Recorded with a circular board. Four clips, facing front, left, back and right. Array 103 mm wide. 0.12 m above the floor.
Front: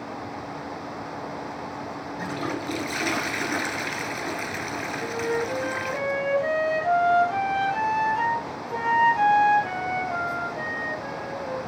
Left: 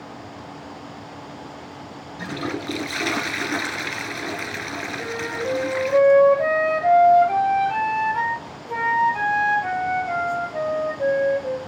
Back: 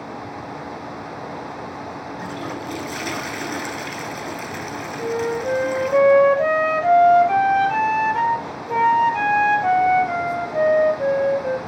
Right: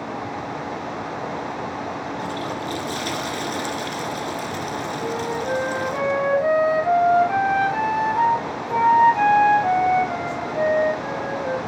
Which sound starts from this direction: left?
A toilet flushing, at 2.2 s.